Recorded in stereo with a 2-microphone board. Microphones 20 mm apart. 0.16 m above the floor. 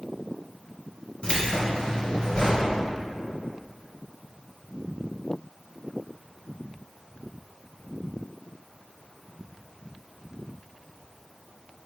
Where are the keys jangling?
45° left (ahead or behind), 1.5 m.